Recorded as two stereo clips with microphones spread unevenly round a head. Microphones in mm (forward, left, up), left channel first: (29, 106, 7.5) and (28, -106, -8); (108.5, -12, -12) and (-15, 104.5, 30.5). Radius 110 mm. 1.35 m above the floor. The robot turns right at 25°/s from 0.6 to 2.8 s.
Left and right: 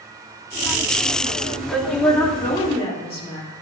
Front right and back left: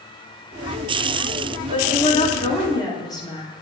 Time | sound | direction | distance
1.7 | a woman speaking | 5° right | 3 m